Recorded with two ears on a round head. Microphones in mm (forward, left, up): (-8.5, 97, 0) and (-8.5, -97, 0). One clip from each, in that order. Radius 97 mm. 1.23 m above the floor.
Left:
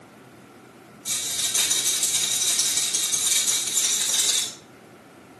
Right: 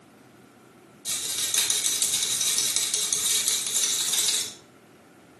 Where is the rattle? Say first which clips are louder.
Left 2 dB; 45° right (ahead or behind), 2.5 m.